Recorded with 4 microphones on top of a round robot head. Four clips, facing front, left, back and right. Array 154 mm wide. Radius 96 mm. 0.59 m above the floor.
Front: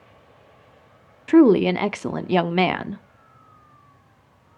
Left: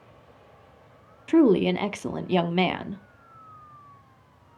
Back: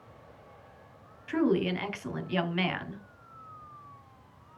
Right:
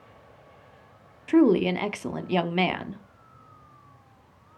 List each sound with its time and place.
1.3 s a woman speaking: 10° left, 1.0 m